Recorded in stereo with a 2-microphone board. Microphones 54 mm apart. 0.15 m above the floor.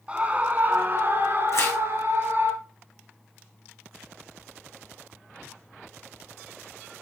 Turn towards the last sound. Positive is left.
turn(degrees=65)  # may be behind; listen again after turning